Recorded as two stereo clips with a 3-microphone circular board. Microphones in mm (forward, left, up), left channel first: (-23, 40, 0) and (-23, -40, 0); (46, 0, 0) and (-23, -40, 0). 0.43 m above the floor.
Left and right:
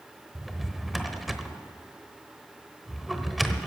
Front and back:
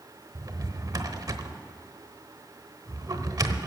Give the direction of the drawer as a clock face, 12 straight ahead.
6 o'clock.